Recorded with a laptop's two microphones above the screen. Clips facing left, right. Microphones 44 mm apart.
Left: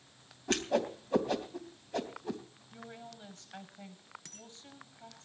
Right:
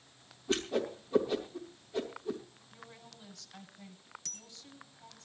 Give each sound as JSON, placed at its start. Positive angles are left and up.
{"t": 0.5, "sound": "a whoosh", "side_deg": 65, "distance_m": 3.0}
{"t": 2.7, "sound": "a woman speaking", "side_deg": 40, "distance_m": 6.0}
{"t": 4.2, "sound": "a dropped coin", "side_deg": 20, "distance_m": 3.5}